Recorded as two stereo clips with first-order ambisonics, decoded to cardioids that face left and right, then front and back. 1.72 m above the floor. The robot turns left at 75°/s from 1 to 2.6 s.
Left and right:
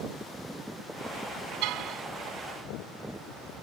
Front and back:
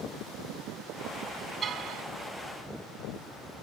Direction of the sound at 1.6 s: 115° right.